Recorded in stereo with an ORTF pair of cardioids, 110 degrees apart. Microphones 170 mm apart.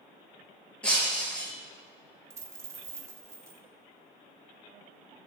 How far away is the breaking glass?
About 3.5 m.